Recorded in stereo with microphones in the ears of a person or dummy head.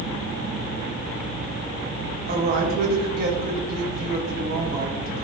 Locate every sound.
2.3 s a woman speaking: 35° right (ahead or behind), 1.1 m